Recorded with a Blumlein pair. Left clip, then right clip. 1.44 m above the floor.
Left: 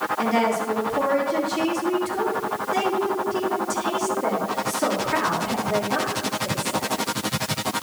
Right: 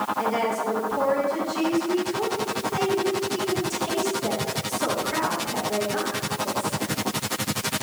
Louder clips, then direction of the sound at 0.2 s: Left 3 dB; 15° left.